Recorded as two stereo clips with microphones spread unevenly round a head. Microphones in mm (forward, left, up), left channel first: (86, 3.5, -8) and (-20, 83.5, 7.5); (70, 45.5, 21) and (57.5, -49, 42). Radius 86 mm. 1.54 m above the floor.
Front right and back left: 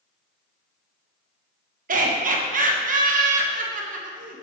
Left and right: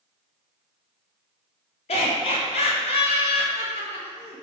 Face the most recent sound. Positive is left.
turn(degrees=120)